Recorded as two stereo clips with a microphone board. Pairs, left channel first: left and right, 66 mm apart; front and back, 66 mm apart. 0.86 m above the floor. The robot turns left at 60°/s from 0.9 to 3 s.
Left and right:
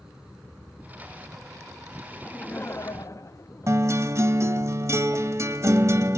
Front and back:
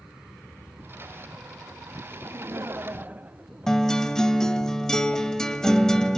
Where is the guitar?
80° right, 0.8 m.